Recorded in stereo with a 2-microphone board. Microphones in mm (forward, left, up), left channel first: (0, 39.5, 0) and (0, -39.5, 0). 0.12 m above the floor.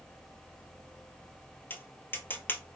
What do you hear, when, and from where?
1.7 s tapping: 25° left (ahead or behind), 0.8 m